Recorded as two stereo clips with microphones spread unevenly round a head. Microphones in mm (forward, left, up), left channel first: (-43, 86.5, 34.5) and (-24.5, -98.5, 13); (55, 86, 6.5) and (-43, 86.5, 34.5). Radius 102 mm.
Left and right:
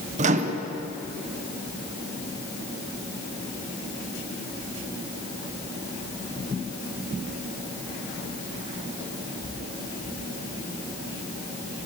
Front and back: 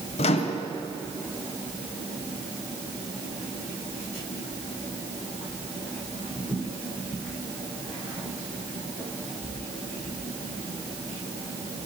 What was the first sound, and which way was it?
A microwave, 30° right.